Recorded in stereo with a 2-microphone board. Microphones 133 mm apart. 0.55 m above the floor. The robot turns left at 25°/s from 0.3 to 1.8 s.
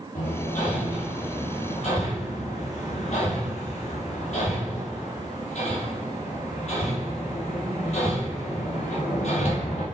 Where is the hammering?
85° left, 5 m; by 9.8 s 55° left (ahead or behind), 5 m.